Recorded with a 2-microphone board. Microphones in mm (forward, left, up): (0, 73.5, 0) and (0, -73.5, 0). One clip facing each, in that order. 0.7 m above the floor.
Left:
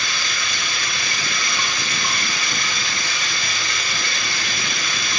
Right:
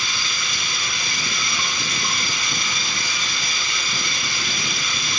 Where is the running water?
75° left (ahead or behind), 1.1 m.